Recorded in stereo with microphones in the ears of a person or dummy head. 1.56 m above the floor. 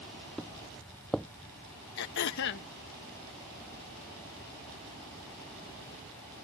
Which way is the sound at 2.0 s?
60° left (ahead or behind).